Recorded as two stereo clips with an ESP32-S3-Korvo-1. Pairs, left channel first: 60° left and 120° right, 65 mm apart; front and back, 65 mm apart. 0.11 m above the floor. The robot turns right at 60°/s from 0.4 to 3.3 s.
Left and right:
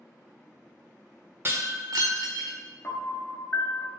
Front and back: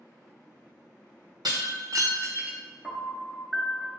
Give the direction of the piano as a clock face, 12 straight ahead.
9 o'clock.